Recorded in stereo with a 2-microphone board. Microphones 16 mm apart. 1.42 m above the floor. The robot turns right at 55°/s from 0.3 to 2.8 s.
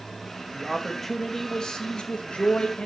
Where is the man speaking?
10° right, 2.5 m; by 2.9 s 115° left, 2.5 m.